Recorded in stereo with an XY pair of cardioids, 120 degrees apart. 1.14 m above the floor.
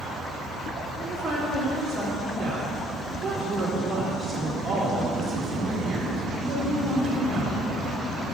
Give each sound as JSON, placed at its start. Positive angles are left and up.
{"t": 1.0, "sound": "a woman speaking", "azimuth_deg": -25, "distance_m": 3.0}